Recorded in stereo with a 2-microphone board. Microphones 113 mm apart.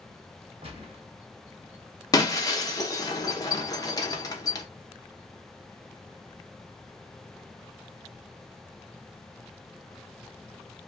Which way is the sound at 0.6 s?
60° right (ahead or behind).